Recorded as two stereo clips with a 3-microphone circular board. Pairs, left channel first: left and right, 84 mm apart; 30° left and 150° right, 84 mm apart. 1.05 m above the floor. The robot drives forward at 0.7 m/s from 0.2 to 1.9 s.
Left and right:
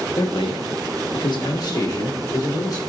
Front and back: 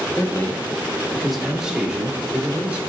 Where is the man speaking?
85° left, 1.1 m; by 2.8 s 135° left, 1.6 m.